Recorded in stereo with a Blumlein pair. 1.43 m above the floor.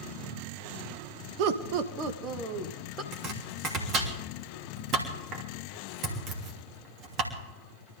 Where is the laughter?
45° right, 1.3 m; by 3.0 s 20° right, 1.9 m.